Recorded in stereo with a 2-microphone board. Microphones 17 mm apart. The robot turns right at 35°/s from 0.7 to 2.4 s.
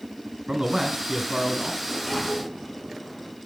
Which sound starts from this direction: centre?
A sliding door, at 1.8 s.